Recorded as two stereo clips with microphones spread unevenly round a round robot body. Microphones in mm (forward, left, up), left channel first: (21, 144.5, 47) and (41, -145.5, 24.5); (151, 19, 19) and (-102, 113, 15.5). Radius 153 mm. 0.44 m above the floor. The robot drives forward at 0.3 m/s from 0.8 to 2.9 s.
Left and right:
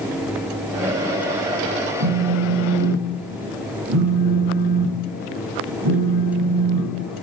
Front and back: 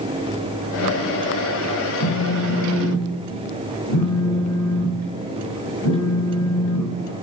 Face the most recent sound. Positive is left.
turn(degrees=-50)